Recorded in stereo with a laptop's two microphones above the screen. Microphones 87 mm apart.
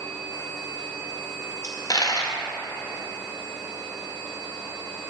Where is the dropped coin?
45° left (ahead or behind), 0.6 m.